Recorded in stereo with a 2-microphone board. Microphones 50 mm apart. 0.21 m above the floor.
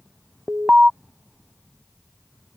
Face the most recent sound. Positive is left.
turn(degrees=-20)  # may be behind; listen again after turning